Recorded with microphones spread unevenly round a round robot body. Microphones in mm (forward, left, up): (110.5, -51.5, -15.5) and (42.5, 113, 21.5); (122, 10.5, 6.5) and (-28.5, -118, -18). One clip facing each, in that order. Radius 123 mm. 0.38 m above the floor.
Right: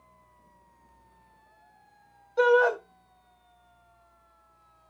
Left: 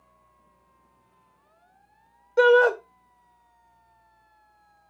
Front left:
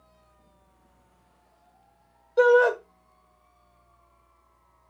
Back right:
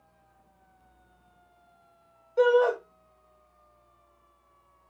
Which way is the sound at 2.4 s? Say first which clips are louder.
Left 4 dB, front left 3 dB; 115° left.